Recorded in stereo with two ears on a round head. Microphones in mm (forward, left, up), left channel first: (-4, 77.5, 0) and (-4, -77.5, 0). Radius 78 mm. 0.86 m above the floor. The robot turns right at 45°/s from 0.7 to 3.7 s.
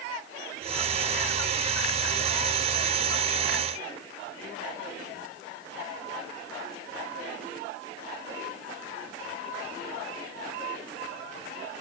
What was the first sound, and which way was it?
Only background noise.